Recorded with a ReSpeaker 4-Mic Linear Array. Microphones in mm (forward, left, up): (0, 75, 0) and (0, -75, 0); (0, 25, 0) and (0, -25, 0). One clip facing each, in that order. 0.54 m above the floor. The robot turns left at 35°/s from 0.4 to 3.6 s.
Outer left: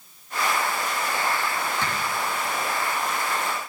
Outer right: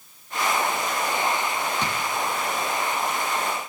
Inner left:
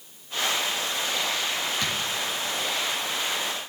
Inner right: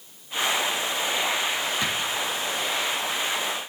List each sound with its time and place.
1.8 s a drawer: 20° right (ahead or behind), 2.5 m; by 2.0 s 15° right (ahead or behind), 2.5 m